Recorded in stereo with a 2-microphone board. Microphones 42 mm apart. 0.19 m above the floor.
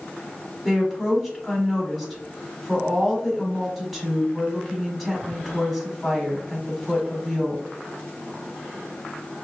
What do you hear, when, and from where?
0.7 s a woman speaking: 5° right (ahead or behind), 1.1 m